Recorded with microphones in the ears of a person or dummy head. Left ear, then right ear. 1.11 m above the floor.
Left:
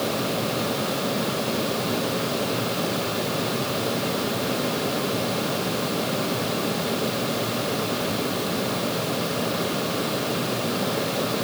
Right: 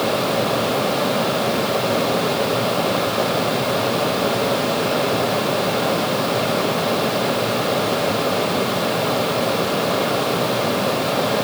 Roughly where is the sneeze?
I don't hear a sneeze.